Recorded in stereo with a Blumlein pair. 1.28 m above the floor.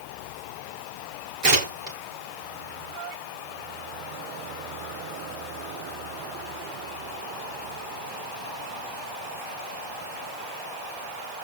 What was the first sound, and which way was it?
Tearing paper, 45° right.